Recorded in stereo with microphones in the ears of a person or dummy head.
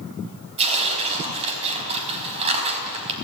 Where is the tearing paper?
35° right (ahead or behind), 4.5 m.